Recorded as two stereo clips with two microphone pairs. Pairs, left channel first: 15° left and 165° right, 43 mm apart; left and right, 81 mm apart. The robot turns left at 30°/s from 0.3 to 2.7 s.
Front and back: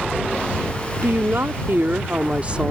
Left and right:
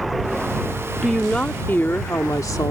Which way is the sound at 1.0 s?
175° left.